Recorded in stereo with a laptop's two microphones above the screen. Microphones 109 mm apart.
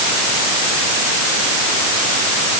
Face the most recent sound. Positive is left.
No sound to turn to.